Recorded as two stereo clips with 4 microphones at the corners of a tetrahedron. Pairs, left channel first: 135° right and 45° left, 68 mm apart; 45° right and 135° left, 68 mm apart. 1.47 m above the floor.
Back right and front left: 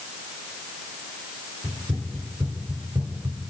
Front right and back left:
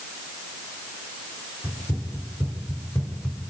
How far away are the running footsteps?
About 8.5 m.